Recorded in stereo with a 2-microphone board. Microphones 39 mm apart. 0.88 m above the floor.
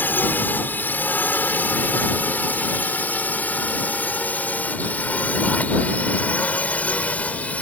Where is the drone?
50° left (ahead or behind); by 7.6 s 35° left (ahead or behind).